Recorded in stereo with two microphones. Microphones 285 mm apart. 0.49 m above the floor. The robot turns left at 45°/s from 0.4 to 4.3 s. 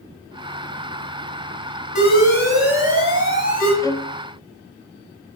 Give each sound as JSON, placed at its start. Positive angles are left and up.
{"t": 1.9, "sound": "an alarm", "azimuth_deg": 25, "distance_m": 6.0}
{"t": 3.8, "sound": "a violin", "side_deg": 10, "distance_m": 0.8}